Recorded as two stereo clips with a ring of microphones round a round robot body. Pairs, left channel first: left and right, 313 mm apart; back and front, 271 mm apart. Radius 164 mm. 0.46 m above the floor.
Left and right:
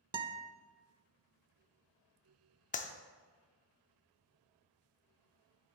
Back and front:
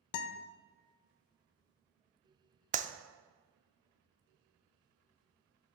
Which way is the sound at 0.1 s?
165° right.